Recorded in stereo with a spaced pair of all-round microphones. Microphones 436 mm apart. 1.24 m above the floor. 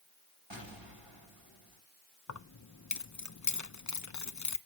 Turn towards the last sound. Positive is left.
turn(degrees=40)  # may be behind; listen again after turning